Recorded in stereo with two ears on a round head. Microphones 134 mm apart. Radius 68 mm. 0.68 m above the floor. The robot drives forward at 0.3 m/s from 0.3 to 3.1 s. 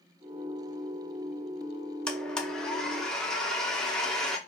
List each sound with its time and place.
2.1 s a blender: 5° left (ahead or behind), 0.5 m